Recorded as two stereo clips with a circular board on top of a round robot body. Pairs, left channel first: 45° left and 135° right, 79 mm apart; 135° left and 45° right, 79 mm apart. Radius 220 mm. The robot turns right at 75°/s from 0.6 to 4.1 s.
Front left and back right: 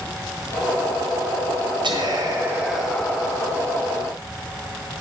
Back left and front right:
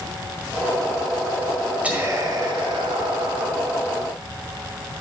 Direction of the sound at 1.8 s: 120° right.